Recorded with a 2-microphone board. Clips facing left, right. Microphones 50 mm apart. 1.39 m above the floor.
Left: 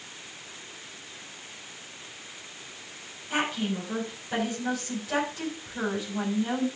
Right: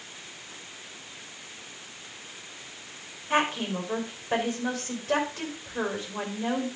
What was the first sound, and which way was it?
A woman speaking, 50° right (ahead or behind).